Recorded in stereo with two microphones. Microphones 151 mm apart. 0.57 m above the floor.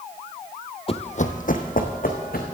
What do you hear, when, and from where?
0.9 s running footsteps: 40° left (ahead or behind), 0.7 m; by 2.4 s 70° left (ahead or behind), 2.5 m